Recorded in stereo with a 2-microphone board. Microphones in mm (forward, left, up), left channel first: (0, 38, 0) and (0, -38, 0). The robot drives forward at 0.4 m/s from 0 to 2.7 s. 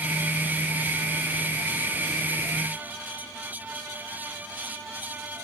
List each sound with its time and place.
Only background noise.